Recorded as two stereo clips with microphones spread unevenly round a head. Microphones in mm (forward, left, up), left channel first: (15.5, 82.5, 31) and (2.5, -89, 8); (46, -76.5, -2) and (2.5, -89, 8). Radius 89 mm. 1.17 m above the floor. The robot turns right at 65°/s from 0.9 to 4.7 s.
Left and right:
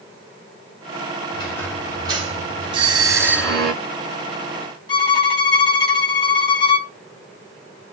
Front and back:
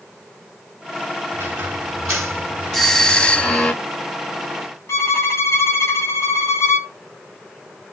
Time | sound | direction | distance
1.3 | a squeak | 145° left | 5 m
2.7 | a doorbell | 65° right | 1.4 m
4.9 | a violin | 25° left | 6 m